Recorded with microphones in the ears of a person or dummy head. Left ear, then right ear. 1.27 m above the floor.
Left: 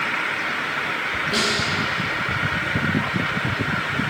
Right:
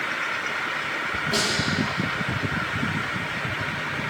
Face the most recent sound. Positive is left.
turn(degrees=-20)  # may be behind; listen again after turning